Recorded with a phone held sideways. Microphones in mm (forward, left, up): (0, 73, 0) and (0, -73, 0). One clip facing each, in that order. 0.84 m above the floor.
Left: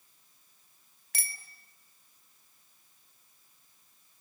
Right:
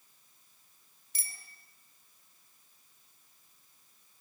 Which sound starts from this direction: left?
A bicycle bell, at 1.1 s.